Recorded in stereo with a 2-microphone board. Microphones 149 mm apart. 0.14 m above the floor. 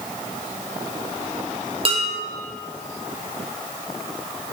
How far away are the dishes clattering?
About 3.5 m.